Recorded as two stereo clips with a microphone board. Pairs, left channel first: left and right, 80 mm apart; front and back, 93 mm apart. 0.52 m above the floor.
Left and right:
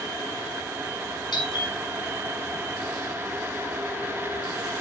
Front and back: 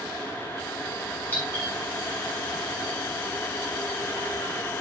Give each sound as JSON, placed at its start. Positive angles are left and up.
{"t": 1.3, "sound": "a doorbell", "azimuth_deg": 70, "distance_m": 5.5}